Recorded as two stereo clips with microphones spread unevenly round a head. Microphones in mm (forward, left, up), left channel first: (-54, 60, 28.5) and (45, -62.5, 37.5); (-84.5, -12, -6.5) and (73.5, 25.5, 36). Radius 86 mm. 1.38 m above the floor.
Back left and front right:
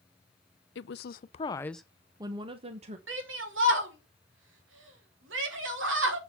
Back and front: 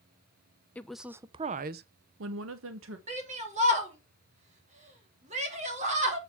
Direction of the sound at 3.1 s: 40° right.